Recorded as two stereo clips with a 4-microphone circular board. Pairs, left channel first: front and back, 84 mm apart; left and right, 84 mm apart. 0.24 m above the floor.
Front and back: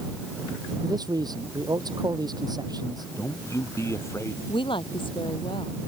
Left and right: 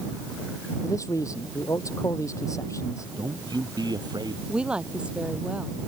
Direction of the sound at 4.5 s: 10° right.